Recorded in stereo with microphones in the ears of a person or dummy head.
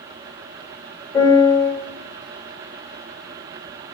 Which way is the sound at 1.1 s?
15° left (ahead or behind).